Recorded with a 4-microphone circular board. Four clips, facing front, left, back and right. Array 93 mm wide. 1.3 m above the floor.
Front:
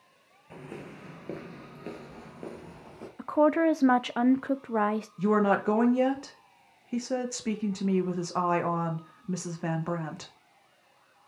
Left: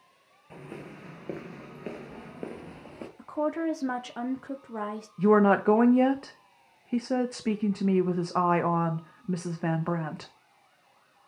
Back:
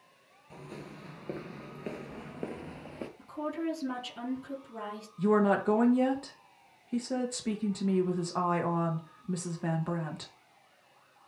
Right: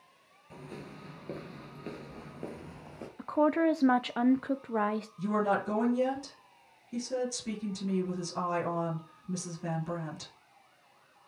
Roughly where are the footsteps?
Ahead left.